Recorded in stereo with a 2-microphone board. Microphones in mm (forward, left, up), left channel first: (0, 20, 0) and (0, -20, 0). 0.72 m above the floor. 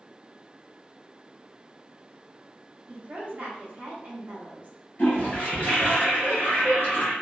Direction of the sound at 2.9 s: 40° right (ahead or behind).